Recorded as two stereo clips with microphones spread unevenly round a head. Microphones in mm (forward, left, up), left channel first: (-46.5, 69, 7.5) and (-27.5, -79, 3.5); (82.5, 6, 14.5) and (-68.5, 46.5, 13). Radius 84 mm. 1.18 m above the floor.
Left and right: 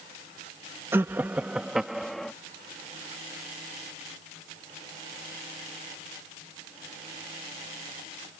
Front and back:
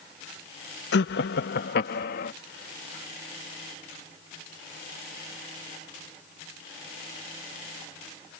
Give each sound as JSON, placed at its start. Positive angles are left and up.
{"t": 0.9, "sound": "laughter", "azimuth_deg": -5}